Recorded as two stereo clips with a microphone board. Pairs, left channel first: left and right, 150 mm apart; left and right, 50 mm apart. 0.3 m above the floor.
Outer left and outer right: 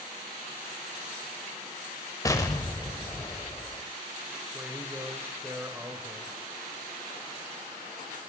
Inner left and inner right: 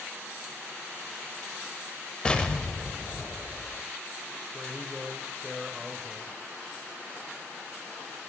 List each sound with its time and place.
2.2 s an explosion: 20° left (ahead or behind), 0.7 m
4.5 s a man speaking: 15° right (ahead or behind), 0.9 m